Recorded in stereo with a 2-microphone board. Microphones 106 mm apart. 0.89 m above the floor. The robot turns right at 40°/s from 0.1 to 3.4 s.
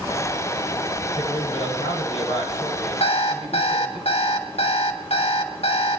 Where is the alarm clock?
70° left (ahead or behind), 2.5 m; by 6.0 s 85° left, 2.5 m.